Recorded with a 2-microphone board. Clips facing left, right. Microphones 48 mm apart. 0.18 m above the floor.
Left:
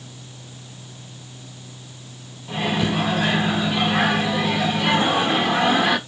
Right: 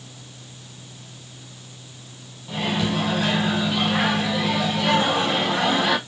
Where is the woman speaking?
No woman speaking in this recording.